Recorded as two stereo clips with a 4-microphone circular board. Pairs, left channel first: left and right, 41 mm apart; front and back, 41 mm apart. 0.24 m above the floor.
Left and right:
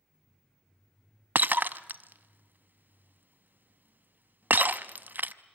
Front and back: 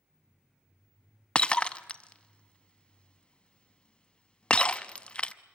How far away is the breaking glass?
About 0.6 m.